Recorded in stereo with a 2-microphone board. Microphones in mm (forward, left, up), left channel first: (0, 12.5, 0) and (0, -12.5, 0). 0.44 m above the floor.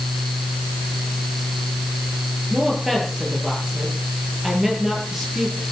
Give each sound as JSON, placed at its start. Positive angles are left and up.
{"t": 2.5, "sound": "a woman speaking", "side_deg": -10, "distance_m": 10.0}